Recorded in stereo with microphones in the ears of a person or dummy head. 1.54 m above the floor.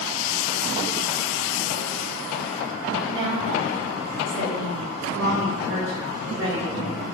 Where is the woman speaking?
35° right (ahead or behind), 1.2 m.